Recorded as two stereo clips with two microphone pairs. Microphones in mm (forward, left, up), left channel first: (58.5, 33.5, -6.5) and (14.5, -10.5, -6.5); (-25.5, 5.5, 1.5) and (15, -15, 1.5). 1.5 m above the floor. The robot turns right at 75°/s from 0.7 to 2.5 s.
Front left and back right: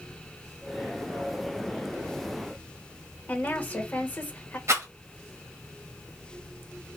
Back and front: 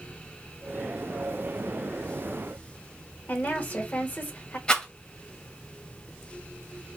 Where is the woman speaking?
105° left, 1.1 m.